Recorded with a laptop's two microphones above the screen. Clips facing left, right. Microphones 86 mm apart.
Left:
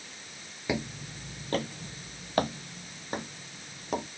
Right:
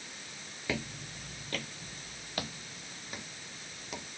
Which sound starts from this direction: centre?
Footsteps, at 0.7 s.